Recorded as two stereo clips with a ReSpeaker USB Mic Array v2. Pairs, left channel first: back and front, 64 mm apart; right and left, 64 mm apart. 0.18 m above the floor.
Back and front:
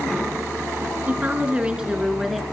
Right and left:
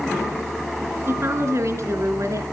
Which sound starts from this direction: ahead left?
A woman speaking, at 1.1 s.